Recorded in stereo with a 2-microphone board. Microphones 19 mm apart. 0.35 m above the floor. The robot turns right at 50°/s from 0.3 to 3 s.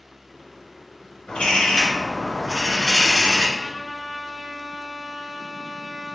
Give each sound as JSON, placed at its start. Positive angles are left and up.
{"t": 1.3, "sound": "a bird", "azimuth_deg": 75, "distance_m": 1.4}
{"t": 3.6, "sound": "a trumpet", "side_deg": -30, "distance_m": 0.6}